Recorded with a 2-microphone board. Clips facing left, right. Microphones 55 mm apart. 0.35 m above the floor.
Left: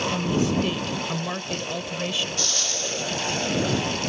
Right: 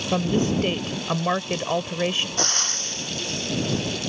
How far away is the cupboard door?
I don't hear a cupboard door.